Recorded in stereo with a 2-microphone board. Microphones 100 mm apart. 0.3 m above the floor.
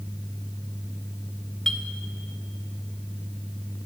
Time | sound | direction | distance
1.7 | a clink | 5° left (ahead or behind) | 0.5 m